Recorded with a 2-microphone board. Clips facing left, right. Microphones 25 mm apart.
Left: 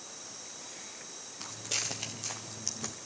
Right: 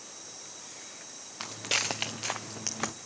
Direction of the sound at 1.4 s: 50° right (ahead or behind).